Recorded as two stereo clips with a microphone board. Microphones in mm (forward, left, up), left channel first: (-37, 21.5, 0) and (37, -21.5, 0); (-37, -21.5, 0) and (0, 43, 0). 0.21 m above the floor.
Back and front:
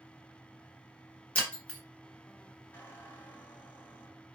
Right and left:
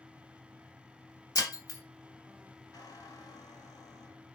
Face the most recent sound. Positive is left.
turn(degrees=-140)